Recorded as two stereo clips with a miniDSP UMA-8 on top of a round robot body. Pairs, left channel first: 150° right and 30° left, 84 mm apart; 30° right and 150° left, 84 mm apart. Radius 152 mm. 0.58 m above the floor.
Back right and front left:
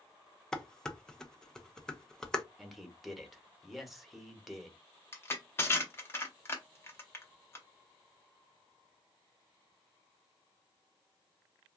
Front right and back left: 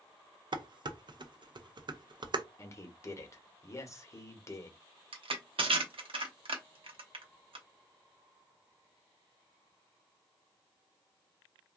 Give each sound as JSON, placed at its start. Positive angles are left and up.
{"t": 0.5, "sound": "dishes clattering", "azimuth_deg": 125, "distance_m": 0.6}
{"t": 2.6, "sound": "a man speaking", "azimuth_deg": -60, "distance_m": 1.0}
{"t": 5.1, "sound": "crushing", "azimuth_deg": 145, "distance_m": 0.9}